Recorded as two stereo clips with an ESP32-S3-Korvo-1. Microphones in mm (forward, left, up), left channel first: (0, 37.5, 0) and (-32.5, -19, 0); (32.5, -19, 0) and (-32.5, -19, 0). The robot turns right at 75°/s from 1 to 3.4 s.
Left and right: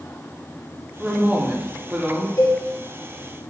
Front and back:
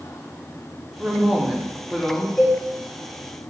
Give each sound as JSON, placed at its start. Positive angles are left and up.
{"t": 1.0, "sound": "a woman speaking", "azimuth_deg": -160, "distance_m": 1.0}
{"t": 2.4, "sound": "a cowbell", "azimuth_deg": 90, "distance_m": 1.1}